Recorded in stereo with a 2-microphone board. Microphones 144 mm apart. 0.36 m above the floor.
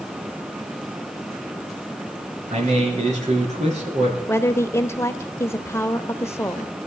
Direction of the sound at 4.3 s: 20° left (ahead or behind).